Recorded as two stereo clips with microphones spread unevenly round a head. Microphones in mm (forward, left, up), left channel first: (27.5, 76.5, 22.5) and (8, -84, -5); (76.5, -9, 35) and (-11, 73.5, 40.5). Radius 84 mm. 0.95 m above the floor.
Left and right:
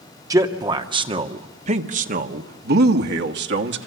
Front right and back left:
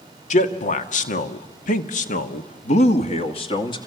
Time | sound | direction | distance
0.3 | a man speaking | 30° right | 1.8 m